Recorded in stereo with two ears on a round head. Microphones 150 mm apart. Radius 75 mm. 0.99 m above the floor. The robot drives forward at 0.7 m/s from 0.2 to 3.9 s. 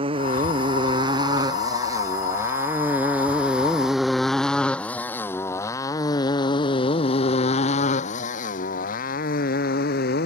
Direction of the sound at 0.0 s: 35° right (ahead or behind).